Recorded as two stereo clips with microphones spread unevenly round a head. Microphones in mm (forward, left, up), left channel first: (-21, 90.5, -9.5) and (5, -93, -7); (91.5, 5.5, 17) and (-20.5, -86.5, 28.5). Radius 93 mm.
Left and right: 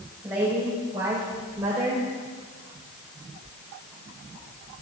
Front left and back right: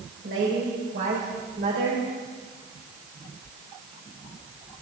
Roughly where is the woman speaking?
Behind.